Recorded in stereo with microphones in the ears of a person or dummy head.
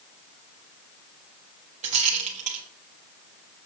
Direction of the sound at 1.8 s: 35° right (ahead or behind).